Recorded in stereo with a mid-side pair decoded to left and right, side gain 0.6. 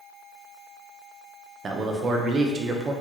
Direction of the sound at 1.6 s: 35° right.